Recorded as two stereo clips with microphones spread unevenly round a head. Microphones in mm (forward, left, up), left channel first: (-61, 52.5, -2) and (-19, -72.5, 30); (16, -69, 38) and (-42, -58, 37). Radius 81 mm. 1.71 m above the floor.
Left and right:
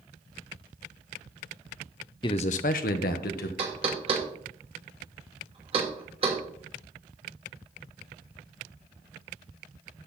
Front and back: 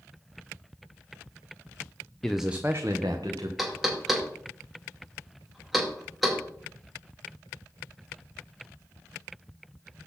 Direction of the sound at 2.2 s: 65° left.